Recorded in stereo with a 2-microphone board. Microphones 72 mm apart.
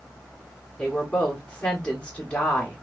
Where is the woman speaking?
15° left (ahead or behind), 1.8 m.